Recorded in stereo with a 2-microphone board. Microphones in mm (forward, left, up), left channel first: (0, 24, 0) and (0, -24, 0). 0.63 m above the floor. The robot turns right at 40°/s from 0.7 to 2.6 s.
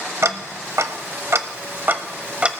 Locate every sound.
0.2 s ticking: 70° right (ahead or behind), 0.7 m; by 2.5 s 20° right (ahead or behind), 0.7 m